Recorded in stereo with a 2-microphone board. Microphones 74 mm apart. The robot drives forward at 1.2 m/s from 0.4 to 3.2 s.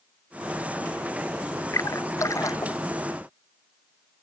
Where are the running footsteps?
No running footsteps in this recording.